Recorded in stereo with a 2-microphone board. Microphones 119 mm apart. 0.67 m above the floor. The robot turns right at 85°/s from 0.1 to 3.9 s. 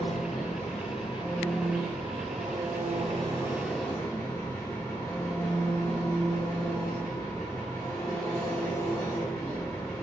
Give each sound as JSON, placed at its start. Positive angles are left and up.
{"t": 0.0, "sound": "an engine running", "azimuth_deg": 55, "distance_m": 0.9}